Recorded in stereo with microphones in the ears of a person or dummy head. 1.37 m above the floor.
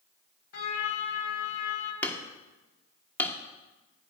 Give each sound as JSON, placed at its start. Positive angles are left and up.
{"t": 0.5, "sound": "a trumpet", "side_deg": 70, "distance_m": 2.5}
{"t": 2.0, "sound": "hammering", "side_deg": 15, "distance_m": 1.3}